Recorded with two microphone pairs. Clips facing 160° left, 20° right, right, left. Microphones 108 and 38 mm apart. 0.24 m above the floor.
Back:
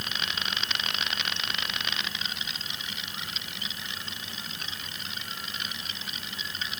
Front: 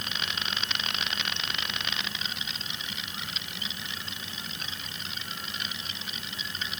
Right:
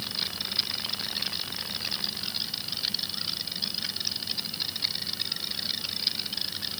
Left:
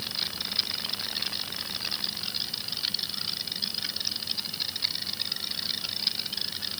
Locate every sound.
Only background noise.